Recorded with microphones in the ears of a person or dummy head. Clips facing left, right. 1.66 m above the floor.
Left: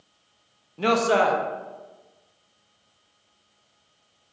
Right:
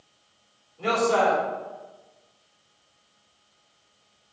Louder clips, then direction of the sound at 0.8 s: Left 2 dB; 80° left.